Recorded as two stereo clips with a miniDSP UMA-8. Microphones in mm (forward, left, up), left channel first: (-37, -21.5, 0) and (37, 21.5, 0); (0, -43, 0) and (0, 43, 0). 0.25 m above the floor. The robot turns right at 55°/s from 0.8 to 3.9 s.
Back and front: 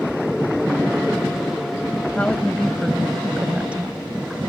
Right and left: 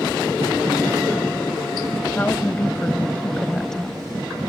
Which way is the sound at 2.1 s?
105° right.